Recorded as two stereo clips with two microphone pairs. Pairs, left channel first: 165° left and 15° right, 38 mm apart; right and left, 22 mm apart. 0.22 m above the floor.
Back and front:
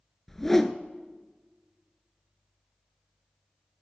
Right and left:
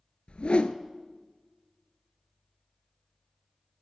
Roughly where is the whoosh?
Behind right.